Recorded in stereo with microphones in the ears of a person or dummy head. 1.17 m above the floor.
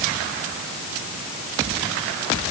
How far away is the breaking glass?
I don't hear breaking glass.